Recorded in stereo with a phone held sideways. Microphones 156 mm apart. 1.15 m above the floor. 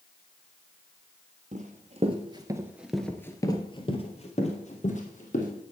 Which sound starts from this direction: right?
Running footsteps, at 1.5 s.